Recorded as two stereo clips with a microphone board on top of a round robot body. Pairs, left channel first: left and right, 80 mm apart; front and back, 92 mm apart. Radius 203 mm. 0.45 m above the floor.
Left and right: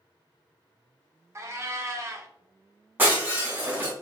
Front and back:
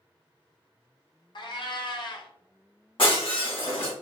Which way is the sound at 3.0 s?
20° right.